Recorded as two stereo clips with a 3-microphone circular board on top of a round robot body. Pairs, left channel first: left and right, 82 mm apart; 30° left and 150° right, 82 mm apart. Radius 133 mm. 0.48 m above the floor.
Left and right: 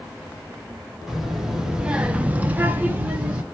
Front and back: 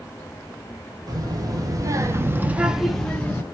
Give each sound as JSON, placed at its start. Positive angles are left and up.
{"t": 1.1, "sound": "a child speaking", "azimuth_deg": -175, "distance_m": 1.3}